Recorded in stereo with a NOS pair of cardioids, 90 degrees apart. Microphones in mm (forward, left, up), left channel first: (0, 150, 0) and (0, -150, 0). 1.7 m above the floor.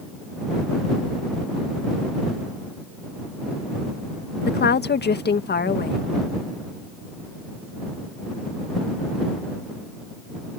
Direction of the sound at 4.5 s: 35° left.